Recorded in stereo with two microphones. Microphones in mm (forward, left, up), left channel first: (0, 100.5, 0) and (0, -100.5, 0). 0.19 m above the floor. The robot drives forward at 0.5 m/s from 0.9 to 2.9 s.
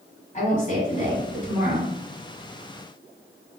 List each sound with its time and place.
0.3 s a woman speaking: 40° left (ahead or behind), 1.7 m; by 1.9 s 35° left (ahead or behind), 1.8 m